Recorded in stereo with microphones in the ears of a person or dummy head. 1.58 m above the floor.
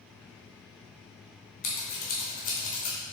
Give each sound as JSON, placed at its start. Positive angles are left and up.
{"t": 1.6, "sound": "scissors", "side_deg": 40, "distance_m": 0.7}